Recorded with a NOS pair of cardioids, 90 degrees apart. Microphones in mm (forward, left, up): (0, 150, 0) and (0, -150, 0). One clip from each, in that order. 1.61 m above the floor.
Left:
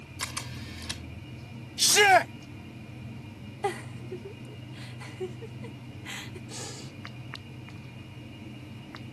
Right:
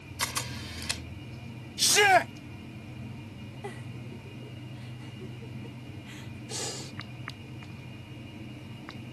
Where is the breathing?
35° right.